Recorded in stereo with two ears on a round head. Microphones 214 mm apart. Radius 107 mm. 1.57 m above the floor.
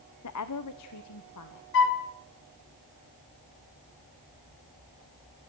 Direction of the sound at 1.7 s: 55° left (ahead or behind).